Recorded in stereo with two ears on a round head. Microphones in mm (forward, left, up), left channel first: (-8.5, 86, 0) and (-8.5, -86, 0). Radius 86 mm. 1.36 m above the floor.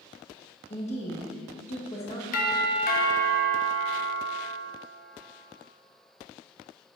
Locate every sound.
0.7 s a woman speaking: 35° left (ahead or behind), 1.5 m
2.3 s a doorbell: 50° left (ahead or behind), 0.9 m